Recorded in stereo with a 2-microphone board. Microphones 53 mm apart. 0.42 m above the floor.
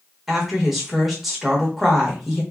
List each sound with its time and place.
0.3 s a woman speaking: 5° right (ahead or behind), 1.0 m